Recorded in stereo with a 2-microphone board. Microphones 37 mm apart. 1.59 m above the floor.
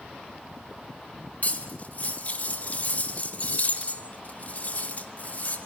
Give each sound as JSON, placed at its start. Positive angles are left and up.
{"t": 1.4, "sound": "cutlery clinking", "side_deg": 40, "distance_m": 2.5}